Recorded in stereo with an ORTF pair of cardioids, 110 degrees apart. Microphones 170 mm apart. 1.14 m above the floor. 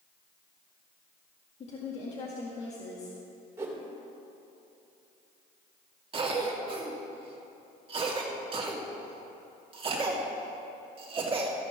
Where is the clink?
I don't hear a clink.